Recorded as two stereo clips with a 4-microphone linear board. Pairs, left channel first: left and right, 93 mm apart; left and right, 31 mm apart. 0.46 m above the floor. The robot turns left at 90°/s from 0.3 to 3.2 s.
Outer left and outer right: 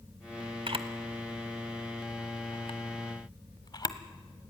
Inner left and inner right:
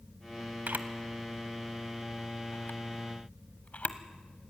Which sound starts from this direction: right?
A camera shutter, at 0.7 s.